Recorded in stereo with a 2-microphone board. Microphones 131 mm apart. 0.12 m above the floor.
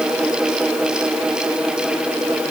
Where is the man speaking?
I don't hear a man speaking.